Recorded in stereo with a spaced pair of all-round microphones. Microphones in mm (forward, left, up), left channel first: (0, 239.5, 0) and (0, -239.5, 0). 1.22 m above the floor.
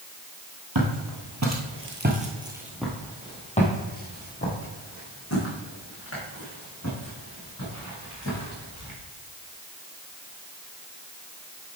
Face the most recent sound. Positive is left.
turn(degrees=35)  # may be behind; listen again after turning